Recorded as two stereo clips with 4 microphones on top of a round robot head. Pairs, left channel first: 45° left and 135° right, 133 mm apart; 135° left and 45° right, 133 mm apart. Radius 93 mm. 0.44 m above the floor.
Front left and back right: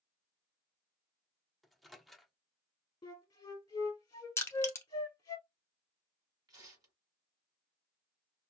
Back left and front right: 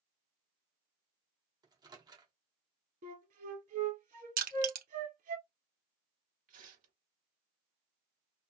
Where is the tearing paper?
70° right, 1.5 m.